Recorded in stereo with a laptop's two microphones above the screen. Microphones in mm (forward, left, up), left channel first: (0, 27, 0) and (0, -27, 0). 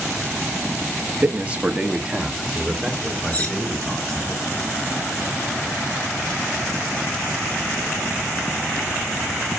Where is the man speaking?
35° right (ahead or behind), 1.1 m; by 4.3 s 10° left (ahead or behind), 4 m.